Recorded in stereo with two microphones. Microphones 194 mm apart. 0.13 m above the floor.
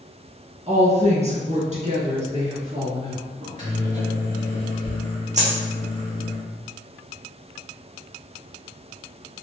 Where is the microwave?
40° right (ahead or behind), 2.0 m.